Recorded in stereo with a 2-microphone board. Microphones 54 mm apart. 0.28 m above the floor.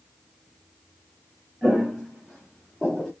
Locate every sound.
1.6 s footsteps: 5° left (ahead or behind), 3 m; by 3.1 s 15° left (ahead or behind), 2 m